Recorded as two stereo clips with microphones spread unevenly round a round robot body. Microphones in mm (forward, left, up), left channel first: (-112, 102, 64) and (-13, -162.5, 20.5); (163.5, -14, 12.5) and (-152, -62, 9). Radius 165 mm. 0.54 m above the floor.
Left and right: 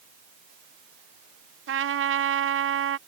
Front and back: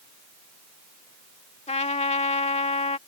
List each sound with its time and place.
1.7 s a trumpet: 55° right